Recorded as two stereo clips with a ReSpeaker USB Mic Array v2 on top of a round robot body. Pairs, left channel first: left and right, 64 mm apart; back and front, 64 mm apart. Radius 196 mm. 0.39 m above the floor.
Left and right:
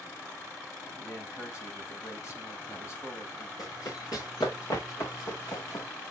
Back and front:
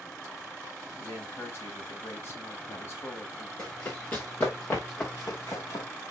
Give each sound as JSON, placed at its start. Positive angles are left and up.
{"t": 1.0, "sound": "a man speaking", "azimuth_deg": 130, "distance_m": 4.0}
{"t": 3.6, "sound": "running footsteps", "azimuth_deg": 115, "distance_m": 5.0}